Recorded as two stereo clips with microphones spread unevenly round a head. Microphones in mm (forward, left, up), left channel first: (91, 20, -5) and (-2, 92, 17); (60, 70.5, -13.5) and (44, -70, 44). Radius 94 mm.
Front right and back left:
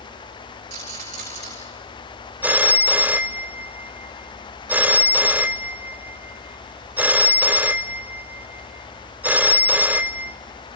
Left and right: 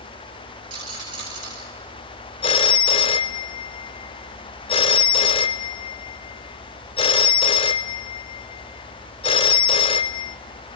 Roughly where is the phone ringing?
Behind left.